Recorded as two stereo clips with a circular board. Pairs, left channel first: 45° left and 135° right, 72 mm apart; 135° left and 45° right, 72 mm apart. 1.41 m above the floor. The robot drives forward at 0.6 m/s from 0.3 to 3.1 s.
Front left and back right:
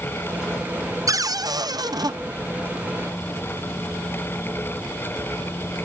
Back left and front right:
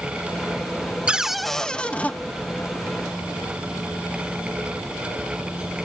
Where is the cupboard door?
115° right, 0.5 m; by 2.1 s 155° right, 1.0 m.